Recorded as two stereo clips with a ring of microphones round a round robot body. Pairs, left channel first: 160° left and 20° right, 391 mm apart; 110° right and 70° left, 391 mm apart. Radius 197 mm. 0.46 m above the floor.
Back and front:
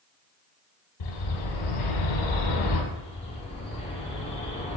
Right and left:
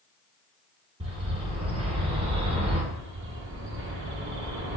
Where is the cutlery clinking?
I don't hear cutlery clinking.